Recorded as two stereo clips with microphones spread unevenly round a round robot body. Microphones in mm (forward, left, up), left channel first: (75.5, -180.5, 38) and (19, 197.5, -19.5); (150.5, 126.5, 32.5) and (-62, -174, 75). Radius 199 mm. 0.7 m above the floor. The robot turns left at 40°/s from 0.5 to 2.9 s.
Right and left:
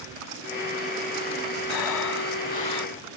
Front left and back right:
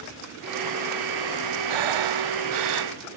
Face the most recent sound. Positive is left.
turn(degrees=-165)